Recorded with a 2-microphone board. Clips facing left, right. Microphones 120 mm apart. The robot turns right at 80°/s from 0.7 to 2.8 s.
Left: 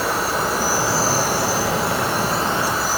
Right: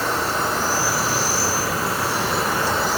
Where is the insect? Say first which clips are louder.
Left 1 dB; 10° left, 8.5 m; by 3.0 s straight behind, 8.5 m.